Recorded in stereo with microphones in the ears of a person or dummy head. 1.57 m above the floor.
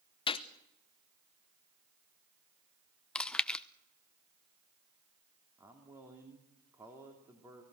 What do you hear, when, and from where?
0.3 s a gunshot: 20° left (ahead or behind), 0.8 m
3.1 s chewing: 5° left (ahead or behind), 0.7 m
5.6 s a man speaking: 10° right (ahead or behind), 3 m